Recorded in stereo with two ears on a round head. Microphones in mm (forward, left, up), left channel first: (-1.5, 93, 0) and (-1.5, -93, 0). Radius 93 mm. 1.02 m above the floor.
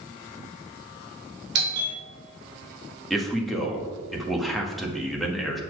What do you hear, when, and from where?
1.6 s a doorbell: 55° right (ahead or behind), 4 m
3.1 s a man speaking: centre (ahead or behind), 1.4 m